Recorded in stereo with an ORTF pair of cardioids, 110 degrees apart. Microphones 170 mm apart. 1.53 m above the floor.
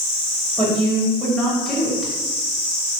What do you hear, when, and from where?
0.6 s a woman speaking: 5° left, 1.8 m